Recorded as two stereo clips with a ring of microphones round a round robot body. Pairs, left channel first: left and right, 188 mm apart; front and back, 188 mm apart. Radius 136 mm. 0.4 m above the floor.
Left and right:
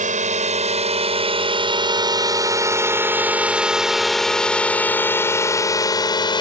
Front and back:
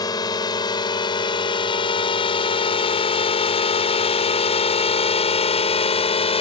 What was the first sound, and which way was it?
A drone, 65° right.